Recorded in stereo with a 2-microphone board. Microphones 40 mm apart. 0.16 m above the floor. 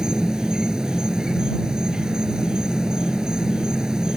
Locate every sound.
0.0 s an insect: 20° right (ahead or behind)